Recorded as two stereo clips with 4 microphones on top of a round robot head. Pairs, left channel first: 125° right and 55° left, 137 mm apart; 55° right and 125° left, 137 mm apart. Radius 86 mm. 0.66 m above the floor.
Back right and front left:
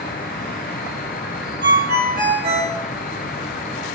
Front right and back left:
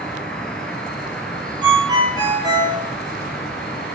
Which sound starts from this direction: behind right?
An insect, at 0.0 s.